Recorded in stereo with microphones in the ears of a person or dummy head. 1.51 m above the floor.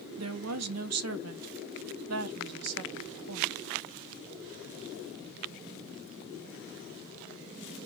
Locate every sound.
0.2 s a woman speaking: 90° right, 0.9 m